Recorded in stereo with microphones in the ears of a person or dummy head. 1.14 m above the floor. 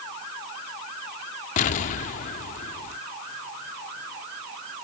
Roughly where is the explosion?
Left.